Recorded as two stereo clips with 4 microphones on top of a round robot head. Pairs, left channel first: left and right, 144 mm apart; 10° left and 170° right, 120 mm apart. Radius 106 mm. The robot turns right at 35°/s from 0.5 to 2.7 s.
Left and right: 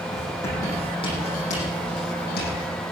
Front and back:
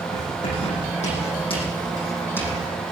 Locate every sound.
0.1 s writing: 20° left, 9 m; by 2.7 s 95° left, 9 m